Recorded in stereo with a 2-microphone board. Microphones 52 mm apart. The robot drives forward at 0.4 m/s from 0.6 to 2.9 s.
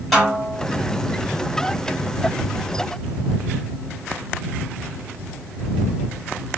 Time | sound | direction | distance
0.1 | a snare drum | centre (ahead or behind) | 1.7 m